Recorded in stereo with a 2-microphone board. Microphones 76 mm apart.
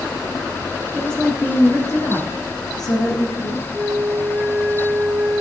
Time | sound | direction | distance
0.9 | a woman speaking | 5° left (ahead or behind) | 1.3 m
3.7 | a flute | 10° right (ahead or behind) | 1.3 m